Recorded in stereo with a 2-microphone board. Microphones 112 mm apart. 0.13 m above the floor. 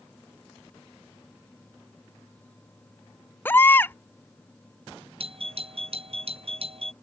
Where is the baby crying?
20° left (ahead or behind).